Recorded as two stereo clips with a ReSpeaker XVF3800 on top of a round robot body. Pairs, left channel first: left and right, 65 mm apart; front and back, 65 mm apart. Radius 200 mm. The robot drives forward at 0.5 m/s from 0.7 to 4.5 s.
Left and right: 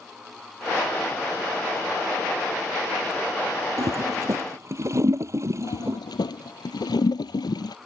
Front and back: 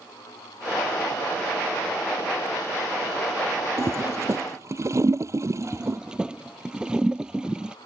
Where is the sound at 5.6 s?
100° left.